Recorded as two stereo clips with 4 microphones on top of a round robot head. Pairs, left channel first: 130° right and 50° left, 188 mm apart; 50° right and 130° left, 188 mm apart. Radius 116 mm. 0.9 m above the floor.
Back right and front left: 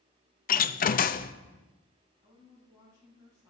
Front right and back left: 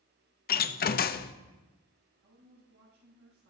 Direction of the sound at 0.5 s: 90° right.